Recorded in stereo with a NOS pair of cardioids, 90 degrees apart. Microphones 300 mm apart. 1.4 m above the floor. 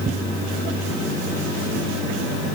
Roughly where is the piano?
No piano in this recording.